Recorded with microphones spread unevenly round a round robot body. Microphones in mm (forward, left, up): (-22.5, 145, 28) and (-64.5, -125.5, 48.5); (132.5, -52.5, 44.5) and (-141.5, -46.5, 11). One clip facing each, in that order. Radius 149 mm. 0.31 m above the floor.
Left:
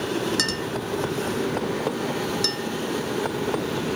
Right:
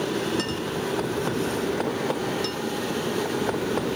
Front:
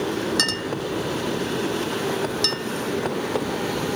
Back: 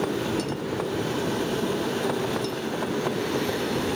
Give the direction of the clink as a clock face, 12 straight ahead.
11 o'clock.